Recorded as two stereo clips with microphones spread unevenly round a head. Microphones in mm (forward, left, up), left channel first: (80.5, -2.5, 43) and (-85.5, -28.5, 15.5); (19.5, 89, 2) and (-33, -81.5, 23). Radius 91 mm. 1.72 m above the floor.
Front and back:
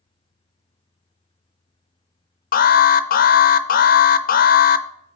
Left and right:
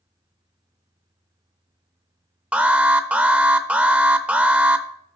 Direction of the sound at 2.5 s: 25° right.